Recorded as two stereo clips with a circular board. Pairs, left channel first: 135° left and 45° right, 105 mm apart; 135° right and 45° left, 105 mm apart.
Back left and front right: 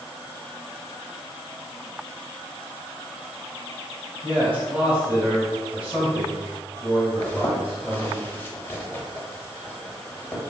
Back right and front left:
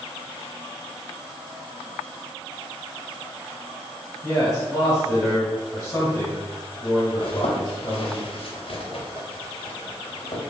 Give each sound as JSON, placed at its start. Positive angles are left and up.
{"t": 4.2, "sound": "a man speaking", "azimuth_deg": -105, "distance_m": 1.4}
{"t": 7.2, "sound": "a zipper", "azimuth_deg": -155, "distance_m": 0.5}